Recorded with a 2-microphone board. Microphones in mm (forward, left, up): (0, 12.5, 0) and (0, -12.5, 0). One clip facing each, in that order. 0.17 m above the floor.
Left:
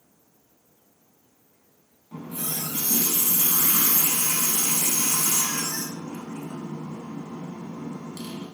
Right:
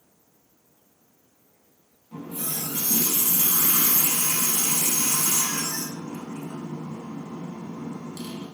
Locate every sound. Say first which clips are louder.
2.1 s a running tap: even; 25° left (ahead or behind), 0.8 m